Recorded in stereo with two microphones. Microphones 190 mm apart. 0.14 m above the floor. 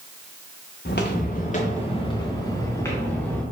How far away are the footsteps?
About 1.0 m.